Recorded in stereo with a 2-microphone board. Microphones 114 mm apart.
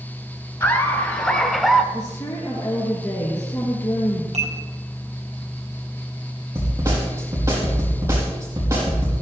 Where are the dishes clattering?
70° right (ahead or behind), 4 m.